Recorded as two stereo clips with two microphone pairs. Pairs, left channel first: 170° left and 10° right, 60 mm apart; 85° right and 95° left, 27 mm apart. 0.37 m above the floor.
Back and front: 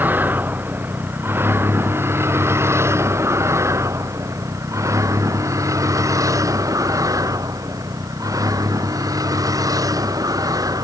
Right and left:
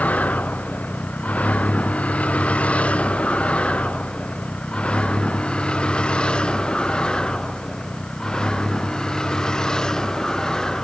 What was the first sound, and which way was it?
A vehicle, 70° right.